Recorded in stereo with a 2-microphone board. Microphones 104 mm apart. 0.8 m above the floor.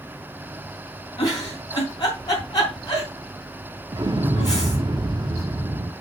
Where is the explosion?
40° right (ahead or behind), 0.6 m.